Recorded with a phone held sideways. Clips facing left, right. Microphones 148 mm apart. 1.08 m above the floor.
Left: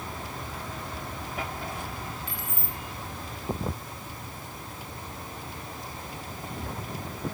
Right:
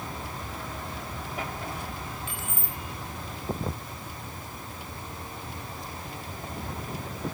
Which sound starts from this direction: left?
Keys jangling, at 2.3 s.